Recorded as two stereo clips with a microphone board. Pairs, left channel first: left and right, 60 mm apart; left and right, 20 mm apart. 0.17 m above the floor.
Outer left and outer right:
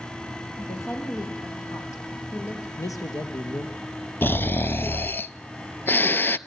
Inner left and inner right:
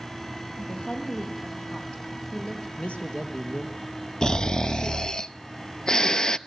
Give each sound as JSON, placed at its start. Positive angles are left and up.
{"t": 0.6, "sound": "a woman speaking", "side_deg": 60, "distance_m": 7.0}
{"t": 2.8, "sound": "a man speaking", "side_deg": 75, "distance_m": 3.5}
{"t": 4.2, "sound": "snoring", "side_deg": 40, "distance_m": 0.5}